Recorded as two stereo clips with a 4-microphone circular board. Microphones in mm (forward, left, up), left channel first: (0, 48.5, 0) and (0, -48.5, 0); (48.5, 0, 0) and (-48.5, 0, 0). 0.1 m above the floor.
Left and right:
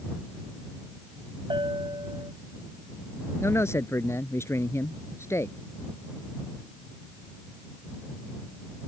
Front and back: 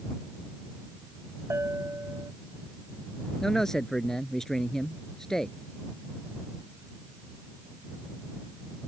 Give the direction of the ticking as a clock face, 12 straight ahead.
I don't hear ticking.